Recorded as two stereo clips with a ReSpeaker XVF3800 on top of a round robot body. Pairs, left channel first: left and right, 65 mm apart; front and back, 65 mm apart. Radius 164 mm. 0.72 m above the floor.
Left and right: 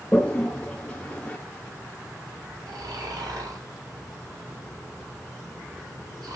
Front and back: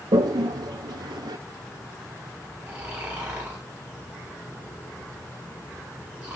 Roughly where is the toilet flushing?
Behind.